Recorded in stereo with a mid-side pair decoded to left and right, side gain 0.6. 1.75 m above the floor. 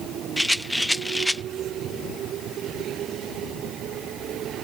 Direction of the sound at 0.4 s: Straight ahead.